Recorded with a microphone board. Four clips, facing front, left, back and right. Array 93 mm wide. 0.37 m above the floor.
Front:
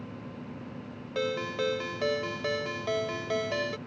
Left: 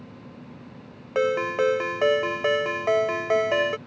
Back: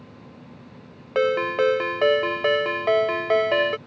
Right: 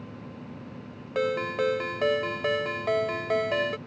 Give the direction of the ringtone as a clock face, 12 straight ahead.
7 o'clock.